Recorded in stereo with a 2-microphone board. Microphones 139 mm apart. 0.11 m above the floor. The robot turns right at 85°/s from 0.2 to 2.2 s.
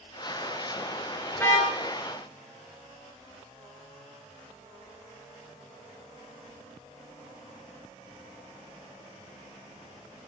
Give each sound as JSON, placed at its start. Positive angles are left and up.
{"t": 1.4, "sound": "a car horn", "azimuth_deg": 10, "distance_m": 6.0}